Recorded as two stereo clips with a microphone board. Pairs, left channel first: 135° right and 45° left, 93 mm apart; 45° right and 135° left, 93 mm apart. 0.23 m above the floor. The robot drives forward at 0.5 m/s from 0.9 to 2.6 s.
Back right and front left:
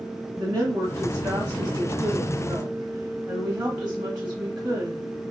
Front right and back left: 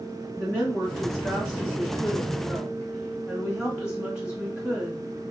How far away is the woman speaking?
About 1.5 m.